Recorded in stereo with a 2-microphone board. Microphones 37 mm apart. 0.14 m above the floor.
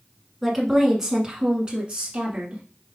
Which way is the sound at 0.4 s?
Centre (ahead or behind).